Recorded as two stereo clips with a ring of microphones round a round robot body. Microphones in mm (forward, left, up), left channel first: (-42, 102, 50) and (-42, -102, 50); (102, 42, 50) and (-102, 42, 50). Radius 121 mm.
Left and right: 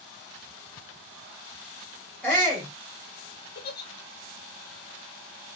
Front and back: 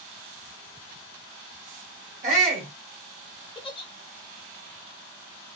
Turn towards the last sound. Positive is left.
turn(degrees=60)